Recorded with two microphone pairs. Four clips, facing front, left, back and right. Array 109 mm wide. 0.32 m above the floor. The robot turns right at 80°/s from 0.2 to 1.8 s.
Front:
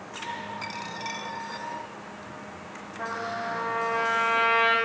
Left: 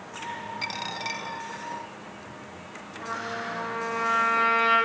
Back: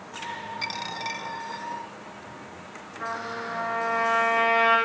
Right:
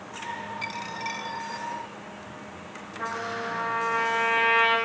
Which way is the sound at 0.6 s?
100° left.